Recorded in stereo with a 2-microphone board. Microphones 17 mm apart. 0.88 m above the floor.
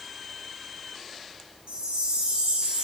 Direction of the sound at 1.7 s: 55° right (ahead or behind).